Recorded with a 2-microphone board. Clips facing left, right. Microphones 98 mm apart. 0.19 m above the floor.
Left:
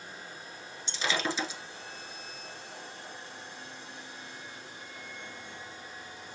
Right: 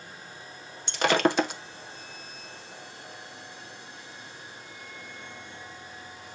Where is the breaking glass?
65° right (ahead or behind), 0.8 m.